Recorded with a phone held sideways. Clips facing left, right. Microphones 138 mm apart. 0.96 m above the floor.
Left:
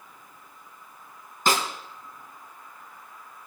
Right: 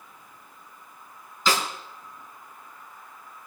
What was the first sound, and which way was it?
A snare drum, 50° left (ahead or behind).